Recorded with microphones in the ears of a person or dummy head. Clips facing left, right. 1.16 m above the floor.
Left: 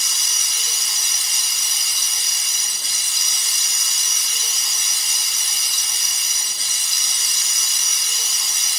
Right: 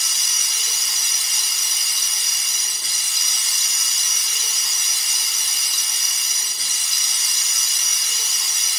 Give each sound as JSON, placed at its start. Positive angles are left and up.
{"t": 0.0, "sound": "running water", "side_deg": 30, "distance_m": 1.7}